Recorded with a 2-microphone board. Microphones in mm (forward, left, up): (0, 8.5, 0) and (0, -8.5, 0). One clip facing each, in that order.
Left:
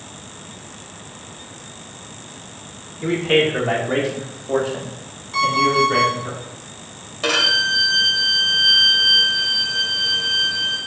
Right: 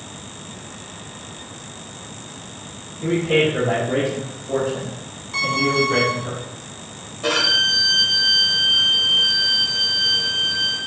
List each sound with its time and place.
3.0 s a man speaking: 55° left (ahead or behind), 3 m; by 6.3 s 25° left (ahead or behind), 3 m
5.3 s an alarm clock: centre (ahead or behind), 1.8 m
7.2 s a violin: 45° left (ahead or behind), 2 m